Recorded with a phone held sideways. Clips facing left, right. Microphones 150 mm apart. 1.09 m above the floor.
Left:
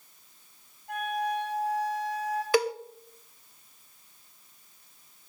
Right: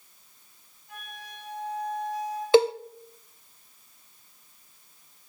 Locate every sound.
0.9 s a flute: 70° left (ahead or behind), 8.5 m
2.5 s a cowbell: 25° right (ahead or behind), 0.5 m